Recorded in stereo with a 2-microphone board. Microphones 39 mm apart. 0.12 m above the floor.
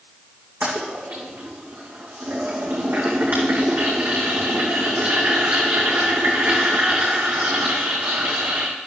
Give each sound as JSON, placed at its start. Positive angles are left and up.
{"t": 0.6, "sound": "a toilet flushing", "side_deg": -70, "distance_m": 2.5}